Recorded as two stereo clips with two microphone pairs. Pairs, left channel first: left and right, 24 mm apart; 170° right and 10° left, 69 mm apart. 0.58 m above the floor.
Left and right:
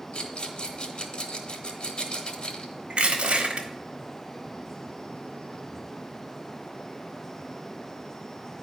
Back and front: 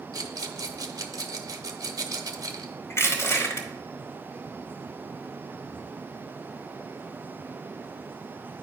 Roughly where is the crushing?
Behind right.